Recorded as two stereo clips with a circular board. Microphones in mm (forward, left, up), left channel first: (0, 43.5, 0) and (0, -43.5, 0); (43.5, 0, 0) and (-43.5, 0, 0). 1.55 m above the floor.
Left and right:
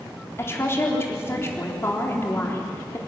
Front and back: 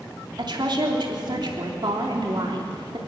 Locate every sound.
0.4 s a woman speaking: 150° left, 3.5 m